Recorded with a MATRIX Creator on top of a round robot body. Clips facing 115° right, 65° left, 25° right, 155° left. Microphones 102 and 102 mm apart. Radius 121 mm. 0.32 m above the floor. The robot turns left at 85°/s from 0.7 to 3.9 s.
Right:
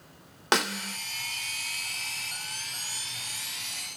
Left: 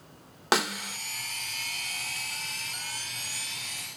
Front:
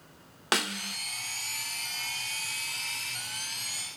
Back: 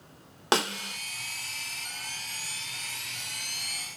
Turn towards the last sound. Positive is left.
turn(degrees=-130)